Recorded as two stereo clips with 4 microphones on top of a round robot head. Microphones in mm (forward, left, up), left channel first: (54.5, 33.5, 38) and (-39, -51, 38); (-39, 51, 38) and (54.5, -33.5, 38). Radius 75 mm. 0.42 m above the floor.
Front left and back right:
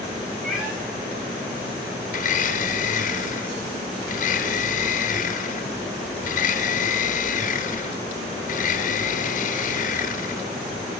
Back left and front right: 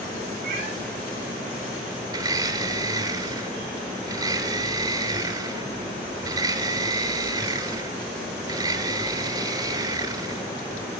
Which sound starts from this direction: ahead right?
A cat meowing, at 0.4 s.